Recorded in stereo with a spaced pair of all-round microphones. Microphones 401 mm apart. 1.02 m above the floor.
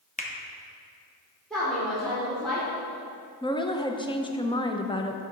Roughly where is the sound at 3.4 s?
Centre.